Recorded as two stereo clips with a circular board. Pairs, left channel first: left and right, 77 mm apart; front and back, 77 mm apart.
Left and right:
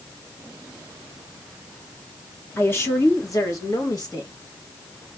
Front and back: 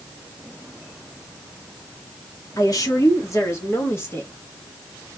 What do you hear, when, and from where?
2.6 s a woman speaking: 30° left, 1.7 m; by 4.3 s 60° left, 2 m